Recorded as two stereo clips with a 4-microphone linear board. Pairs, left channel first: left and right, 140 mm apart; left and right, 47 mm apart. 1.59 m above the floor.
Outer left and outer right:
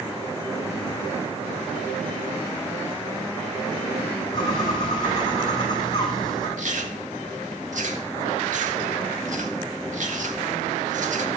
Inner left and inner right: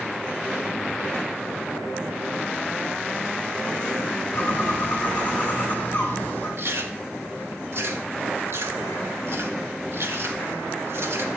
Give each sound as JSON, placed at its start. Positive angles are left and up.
{"t": 4.3, "sound": "a bird", "side_deg": 30, "distance_m": 6.0}
{"t": 6.6, "sound": "chewing", "side_deg": -65, "distance_m": 1.8}